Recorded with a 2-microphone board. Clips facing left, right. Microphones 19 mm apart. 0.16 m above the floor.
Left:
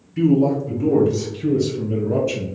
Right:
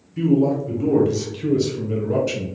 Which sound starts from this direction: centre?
A man speaking, at 0.2 s.